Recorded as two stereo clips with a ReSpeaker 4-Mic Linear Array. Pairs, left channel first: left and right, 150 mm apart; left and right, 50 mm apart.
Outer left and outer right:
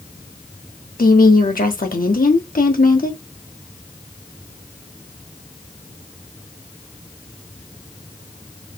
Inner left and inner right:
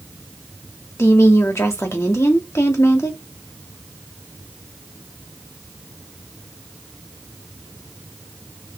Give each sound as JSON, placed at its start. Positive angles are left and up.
{"t": 1.0, "sound": "a woman speaking", "side_deg": 90, "distance_m": 1.2}